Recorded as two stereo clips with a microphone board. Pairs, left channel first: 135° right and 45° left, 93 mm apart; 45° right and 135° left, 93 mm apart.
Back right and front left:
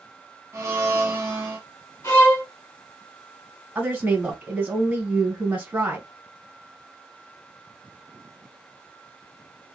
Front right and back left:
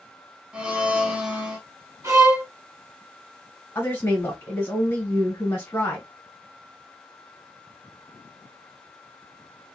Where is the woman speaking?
10° right, 1.8 m.